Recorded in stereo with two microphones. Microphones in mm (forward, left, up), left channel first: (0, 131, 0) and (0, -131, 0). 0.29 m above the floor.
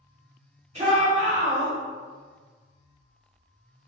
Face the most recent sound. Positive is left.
turn(degrees=-25)  # may be behind; listen again after turning